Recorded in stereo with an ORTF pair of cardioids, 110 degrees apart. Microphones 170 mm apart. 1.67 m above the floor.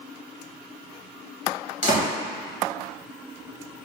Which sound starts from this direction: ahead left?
A door slam, at 1.8 s.